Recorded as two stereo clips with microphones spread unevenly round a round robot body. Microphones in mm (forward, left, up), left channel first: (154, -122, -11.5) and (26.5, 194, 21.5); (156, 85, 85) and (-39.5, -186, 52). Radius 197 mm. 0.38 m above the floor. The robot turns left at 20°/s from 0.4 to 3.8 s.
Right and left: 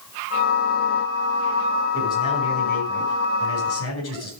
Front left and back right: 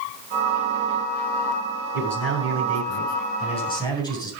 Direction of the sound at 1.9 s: 10° left.